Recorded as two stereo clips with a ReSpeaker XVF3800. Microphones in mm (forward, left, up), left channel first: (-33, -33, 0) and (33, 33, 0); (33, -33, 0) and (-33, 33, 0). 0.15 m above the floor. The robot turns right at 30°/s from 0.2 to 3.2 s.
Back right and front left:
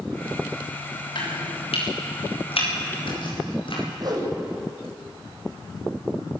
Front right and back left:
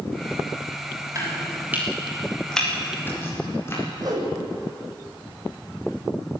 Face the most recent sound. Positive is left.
turn(degrees=90)